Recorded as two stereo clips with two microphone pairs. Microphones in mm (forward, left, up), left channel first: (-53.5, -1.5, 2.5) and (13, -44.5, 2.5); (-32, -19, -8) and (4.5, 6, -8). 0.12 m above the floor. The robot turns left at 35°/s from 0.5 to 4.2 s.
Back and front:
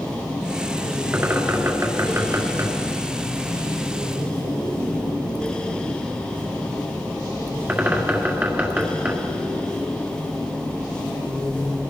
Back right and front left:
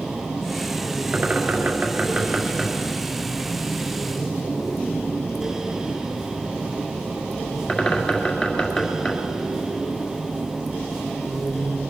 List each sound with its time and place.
1.1 s a bird: 25° left, 1.8 m; by 9.4 s 80° right, 1.8 m